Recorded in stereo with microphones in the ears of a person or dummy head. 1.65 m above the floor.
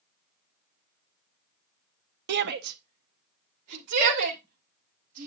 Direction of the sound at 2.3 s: 60° right (ahead or behind).